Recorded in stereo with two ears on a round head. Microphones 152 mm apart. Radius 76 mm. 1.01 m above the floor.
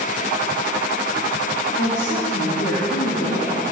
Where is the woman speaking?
65° left (ahead or behind), 2 m.